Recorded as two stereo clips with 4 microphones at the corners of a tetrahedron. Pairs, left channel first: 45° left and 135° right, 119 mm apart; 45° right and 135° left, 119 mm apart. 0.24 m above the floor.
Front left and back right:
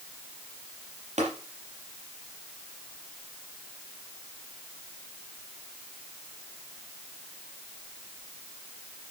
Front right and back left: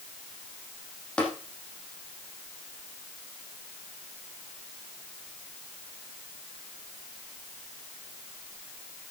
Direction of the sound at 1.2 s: 125° right.